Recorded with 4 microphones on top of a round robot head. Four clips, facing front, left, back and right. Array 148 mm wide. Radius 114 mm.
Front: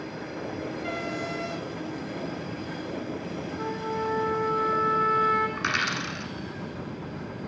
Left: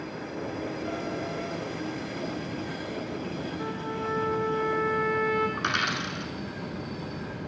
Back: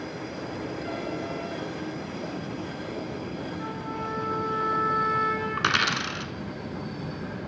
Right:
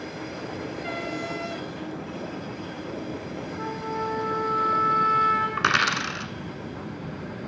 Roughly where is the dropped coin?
Behind right.